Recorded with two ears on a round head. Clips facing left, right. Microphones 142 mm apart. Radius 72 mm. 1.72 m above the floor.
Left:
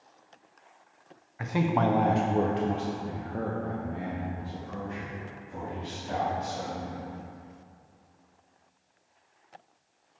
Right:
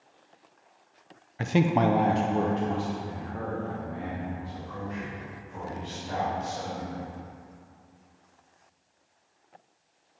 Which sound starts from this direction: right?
A man speaking, at 1.4 s.